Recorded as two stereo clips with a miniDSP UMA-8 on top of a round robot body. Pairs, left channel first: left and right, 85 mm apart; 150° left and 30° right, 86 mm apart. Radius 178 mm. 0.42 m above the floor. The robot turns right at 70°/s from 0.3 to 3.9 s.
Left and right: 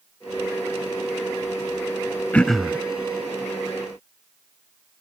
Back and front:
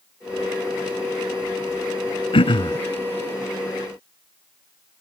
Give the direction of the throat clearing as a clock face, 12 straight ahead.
7 o'clock.